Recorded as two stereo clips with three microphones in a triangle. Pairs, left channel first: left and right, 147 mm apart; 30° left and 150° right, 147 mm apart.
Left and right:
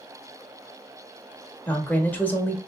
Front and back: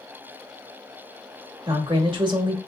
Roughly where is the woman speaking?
Behind.